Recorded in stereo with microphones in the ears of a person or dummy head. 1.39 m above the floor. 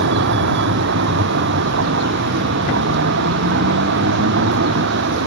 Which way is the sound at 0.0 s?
60° right (ahead or behind).